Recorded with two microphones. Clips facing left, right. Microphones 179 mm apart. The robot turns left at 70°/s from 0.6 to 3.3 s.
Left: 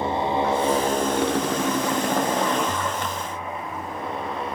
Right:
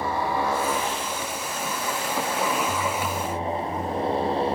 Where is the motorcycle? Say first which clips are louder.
Left 3 dB; 160° left; by 4.6 s 30° right.